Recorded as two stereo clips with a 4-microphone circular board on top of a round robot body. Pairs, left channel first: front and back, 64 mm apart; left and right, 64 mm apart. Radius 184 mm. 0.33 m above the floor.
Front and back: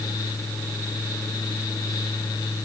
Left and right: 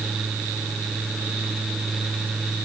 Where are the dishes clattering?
No dishes clattering in this recording.